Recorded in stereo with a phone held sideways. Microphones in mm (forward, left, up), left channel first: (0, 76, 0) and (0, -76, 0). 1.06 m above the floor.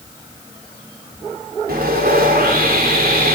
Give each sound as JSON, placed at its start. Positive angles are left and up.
{"t": 1.7, "sound": "sawing", "side_deg": -80, "distance_m": 3.5}